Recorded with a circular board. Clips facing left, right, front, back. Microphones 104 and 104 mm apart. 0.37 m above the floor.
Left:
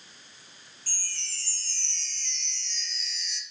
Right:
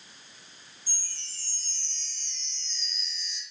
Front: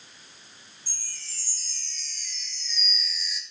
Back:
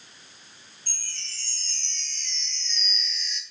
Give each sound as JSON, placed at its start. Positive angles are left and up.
{"t": 0.9, "sound": "a chime", "azimuth_deg": 80, "distance_m": 1.5}